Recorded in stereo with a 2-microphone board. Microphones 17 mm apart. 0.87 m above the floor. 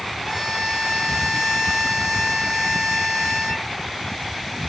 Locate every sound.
0.2 s a violin: 5° right (ahead or behind), 0.8 m